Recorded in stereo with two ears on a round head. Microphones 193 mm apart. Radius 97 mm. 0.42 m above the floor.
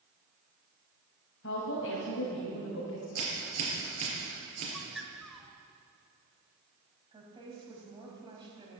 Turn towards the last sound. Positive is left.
turn(degrees=-20)  # may be behind; listen again after turning